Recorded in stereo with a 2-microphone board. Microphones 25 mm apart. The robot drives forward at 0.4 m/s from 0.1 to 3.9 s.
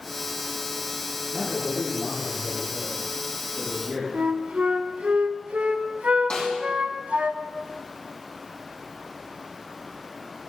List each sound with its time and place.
1.3 s a man speaking: 5° left (ahead or behind), 6.5 m
4.1 s a flute: 75° right (ahead or behind), 1.0 m
6.3 s a snare drum: 40° left (ahead or behind), 5 m